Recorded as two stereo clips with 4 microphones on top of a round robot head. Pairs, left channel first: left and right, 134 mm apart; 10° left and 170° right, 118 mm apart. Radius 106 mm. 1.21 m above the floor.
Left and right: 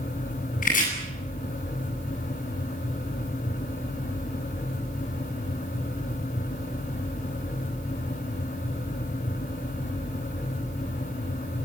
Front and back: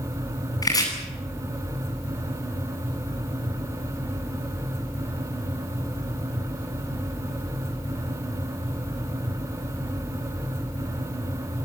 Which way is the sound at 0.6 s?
70° left.